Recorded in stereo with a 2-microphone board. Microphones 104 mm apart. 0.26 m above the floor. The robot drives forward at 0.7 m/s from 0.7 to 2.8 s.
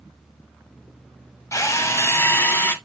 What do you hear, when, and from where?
1.5 s a drill: 30° left (ahead or behind), 1.0 m; by 2.8 s 20° left (ahead or behind), 1.5 m